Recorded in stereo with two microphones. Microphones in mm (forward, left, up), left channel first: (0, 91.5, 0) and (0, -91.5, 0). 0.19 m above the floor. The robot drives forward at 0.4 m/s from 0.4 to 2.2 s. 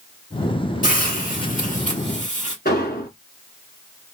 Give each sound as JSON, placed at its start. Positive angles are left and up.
{"t": 0.8, "sound": "a hiss", "side_deg": 50, "distance_m": 2.5}
{"t": 2.6, "sound": "an explosion", "side_deg": 60, "distance_m": 1.4}